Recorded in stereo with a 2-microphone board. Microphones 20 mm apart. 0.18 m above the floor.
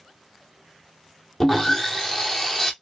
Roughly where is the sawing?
Centre.